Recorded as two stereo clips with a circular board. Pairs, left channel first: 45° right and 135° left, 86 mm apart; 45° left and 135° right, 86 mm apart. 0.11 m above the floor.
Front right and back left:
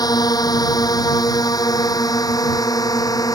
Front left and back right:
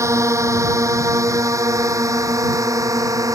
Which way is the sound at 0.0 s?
80° right.